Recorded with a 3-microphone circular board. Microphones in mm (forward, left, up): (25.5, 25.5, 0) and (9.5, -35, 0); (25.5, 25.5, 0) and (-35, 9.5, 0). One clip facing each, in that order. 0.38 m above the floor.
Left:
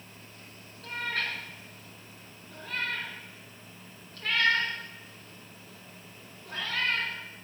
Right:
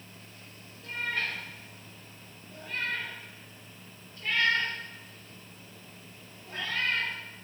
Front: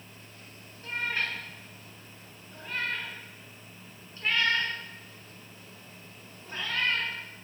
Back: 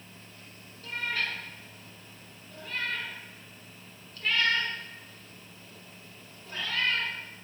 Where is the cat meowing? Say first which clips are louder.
Even, front 1 dB; 75° left, 2 m.